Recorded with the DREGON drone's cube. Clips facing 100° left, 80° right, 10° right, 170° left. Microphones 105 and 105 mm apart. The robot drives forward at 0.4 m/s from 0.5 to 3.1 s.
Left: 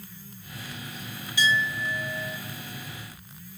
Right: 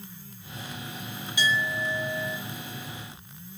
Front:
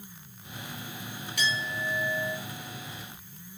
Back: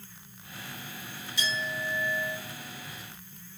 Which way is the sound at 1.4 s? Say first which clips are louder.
Left 1 dB, front 2 dB; 10° right.